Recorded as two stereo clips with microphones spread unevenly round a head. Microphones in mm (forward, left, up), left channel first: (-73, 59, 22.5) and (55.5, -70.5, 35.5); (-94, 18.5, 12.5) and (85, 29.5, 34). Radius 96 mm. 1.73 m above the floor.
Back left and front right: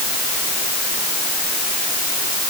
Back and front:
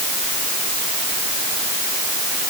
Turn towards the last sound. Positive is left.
No sound to turn to.